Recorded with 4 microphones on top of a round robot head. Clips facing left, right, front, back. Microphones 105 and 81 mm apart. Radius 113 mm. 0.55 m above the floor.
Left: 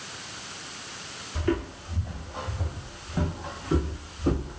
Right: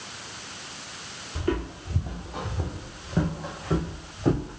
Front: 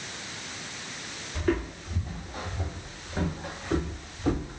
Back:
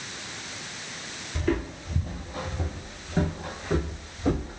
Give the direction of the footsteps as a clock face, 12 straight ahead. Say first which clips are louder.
Left 1 dB, even; 6 o'clock.